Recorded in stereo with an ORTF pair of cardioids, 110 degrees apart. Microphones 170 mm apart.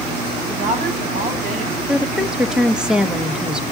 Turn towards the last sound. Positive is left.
turn(degrees=-5)